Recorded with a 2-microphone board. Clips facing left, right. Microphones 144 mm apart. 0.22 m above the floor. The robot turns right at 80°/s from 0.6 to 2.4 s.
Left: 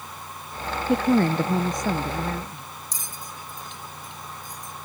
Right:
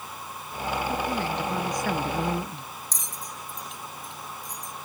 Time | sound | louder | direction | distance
0.9 | a woman speaking | left 14 dB | 90° left | ?
2.9 | a bell | even | centre (ahead or behind) | ?